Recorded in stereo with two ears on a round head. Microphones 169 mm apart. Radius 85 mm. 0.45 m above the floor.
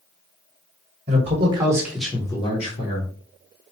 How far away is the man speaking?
About 1.6 m.